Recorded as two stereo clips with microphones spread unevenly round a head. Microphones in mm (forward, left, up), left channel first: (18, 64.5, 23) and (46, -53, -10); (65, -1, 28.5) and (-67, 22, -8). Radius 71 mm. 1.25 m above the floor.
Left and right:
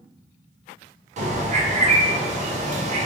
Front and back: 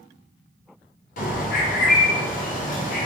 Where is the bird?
45° right, 0.5 m.